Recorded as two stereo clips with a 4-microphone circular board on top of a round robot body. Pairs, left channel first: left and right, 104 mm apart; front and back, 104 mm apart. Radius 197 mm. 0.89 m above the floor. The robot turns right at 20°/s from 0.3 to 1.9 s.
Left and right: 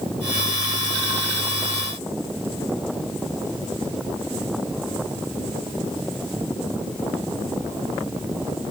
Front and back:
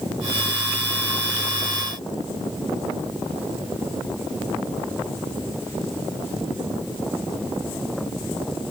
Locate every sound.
Only background noise.